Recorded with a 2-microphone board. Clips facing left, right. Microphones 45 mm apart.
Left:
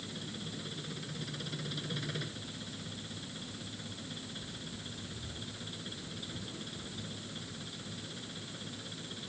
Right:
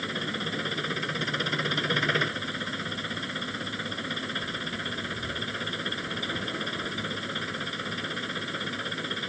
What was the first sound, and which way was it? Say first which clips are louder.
An engine running: right 12 dB; 70° right (ahead or behind).